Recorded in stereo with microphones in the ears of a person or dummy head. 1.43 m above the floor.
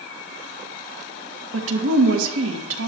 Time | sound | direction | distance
1.5 | a woman speaking | 75° right (ahead or behind) | 1.7 m